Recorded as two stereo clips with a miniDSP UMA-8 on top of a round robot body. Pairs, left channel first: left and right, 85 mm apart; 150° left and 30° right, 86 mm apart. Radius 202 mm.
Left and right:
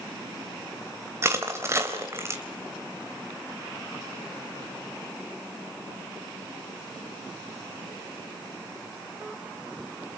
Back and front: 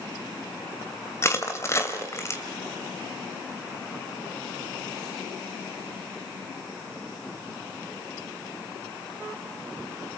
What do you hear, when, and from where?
1.2 s crushing: 150° right, 3 m